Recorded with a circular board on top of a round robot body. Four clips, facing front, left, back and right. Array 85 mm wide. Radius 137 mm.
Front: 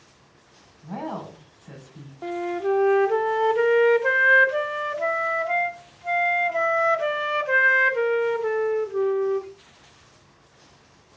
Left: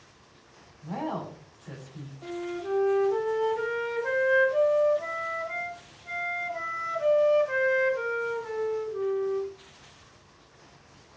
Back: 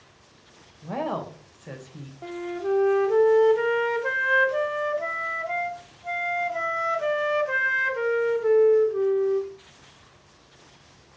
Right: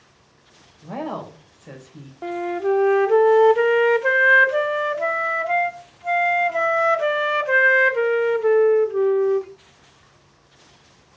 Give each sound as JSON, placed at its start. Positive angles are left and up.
{"t": 0.8, "sound": "a woman speaking", "azimuth_deg": -150, "distance_m": 3.5}
{"t": 2.2, "sound": "a flute", "azimuth_deg": -70, "distance_m": 0.9}